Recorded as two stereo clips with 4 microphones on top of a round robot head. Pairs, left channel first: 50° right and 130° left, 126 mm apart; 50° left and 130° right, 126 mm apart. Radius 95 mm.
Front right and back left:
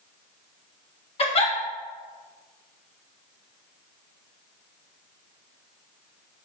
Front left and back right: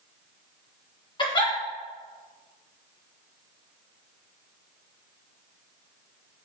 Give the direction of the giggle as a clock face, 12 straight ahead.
12 o'clock.